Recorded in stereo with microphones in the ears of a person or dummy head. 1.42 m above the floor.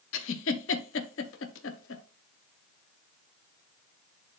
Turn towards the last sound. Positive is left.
turn(degrees=70)  # may be behind; listen again after turning